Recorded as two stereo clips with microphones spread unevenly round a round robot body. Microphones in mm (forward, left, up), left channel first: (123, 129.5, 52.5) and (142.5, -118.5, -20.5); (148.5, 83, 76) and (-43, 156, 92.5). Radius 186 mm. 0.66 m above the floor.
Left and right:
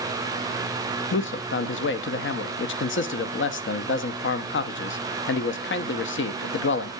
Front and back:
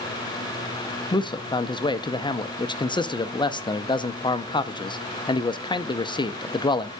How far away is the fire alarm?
No fire alarm in this recording.